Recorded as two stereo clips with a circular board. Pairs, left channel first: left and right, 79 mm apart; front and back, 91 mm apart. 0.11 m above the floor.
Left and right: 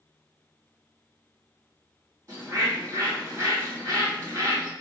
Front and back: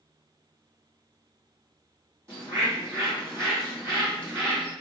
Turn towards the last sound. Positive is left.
turn(degrees=-125)